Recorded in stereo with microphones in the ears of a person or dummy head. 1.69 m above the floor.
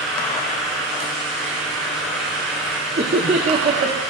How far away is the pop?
I don't hear a pop.